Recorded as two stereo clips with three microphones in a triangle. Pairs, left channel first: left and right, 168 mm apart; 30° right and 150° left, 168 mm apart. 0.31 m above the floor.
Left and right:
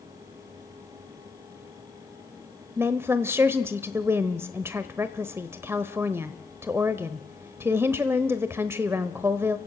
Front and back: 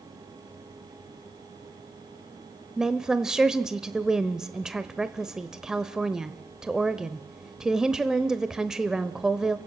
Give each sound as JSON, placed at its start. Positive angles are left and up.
{"t": 2.8, "sound": "a woman speaking", "azimuth_deg": -130, "distance_m": 0.8}